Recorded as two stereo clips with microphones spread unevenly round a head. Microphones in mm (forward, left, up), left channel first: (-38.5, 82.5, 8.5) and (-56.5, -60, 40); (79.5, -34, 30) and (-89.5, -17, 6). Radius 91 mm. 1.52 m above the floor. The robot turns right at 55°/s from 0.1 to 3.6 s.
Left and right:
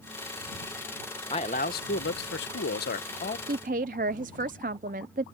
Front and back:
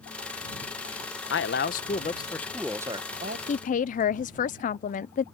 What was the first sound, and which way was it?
A man speaking, 15° left.